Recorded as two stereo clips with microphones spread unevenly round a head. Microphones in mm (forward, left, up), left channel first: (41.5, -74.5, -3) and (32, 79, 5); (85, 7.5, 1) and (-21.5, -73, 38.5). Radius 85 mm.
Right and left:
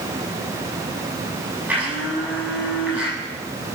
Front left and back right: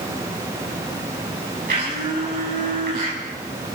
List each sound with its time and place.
1.7 s a blender: 175° left, 7.5 m